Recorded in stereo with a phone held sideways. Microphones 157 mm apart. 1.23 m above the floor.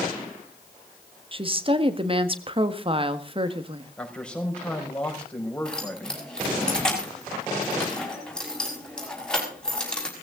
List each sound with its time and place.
1.3 s a woman speaking: 35° right (ahead or behind), 1.6 m
4.0 s a man speaking: 5° left (ahead or behind), 5 m
5.7 s keys jangling: 5° left (ahead or behind), 6 m